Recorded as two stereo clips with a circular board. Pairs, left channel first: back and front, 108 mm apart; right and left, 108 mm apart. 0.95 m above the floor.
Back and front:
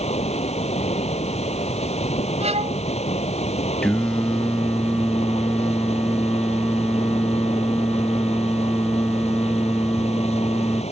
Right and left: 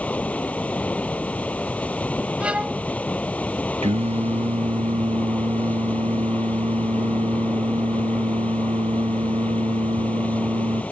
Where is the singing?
100° left.